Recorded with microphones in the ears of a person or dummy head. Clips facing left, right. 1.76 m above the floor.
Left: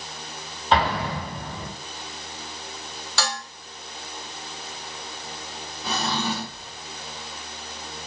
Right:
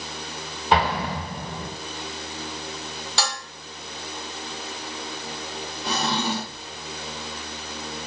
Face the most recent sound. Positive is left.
turn(degrees=0)  # may be behind; listen again after turning